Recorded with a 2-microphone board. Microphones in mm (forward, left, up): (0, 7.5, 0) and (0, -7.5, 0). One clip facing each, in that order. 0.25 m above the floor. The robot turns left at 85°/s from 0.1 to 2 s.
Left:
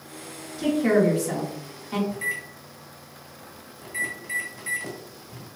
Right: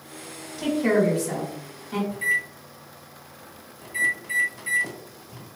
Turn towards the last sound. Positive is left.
turn(degrees=5)  # may be behind; listen again after turning